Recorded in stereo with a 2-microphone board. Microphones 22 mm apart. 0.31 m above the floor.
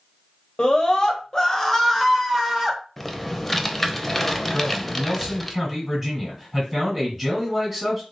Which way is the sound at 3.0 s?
10° left (ahead or behind).